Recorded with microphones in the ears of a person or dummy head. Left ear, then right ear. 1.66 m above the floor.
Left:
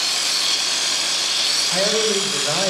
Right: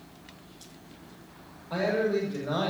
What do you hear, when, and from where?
1.7 s a man speaking: 80° left, 6.5 m